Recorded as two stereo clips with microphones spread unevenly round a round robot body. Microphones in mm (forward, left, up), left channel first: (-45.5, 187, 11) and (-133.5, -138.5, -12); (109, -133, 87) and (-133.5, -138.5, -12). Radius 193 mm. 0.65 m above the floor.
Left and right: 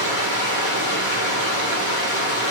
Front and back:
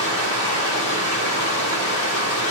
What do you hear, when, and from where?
0.0 s running water: 80° left, 3.5 m